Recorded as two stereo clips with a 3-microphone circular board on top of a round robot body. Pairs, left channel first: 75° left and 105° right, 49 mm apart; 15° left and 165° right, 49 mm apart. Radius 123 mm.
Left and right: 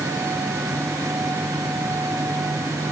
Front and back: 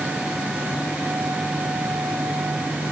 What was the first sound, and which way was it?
Only background noise.